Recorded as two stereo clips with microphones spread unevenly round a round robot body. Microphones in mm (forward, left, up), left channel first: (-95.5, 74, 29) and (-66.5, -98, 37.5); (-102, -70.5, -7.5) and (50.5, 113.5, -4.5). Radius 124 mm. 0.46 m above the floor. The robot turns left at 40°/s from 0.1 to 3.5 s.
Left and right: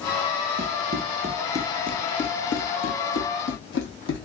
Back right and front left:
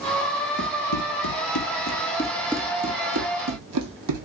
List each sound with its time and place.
0.6 s running footsteps: 85° right, 1.1 m; by 4.3 s 50° left, 1.4 m